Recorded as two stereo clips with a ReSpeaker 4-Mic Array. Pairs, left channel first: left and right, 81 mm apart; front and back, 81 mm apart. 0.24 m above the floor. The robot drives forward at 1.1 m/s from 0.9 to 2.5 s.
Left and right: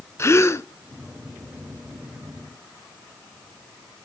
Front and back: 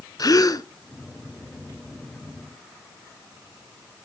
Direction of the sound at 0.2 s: 35° left.